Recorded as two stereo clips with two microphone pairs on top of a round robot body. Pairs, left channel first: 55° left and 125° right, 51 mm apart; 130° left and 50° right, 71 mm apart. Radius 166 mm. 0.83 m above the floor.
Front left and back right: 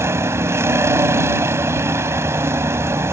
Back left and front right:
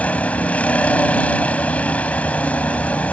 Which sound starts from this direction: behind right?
A vehicle, at 0.0 s.